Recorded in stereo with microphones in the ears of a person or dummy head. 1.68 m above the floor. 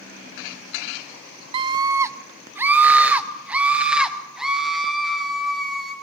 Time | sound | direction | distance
1.5 | a scream | 25° right (ahead or behind) | 0.7 m